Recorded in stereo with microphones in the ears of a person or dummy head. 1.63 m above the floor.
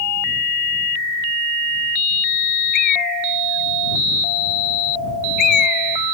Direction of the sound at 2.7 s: 55° left (ahead or behind).